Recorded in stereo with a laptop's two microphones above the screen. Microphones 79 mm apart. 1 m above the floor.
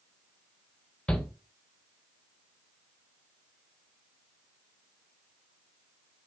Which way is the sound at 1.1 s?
10° left (ahead or behind).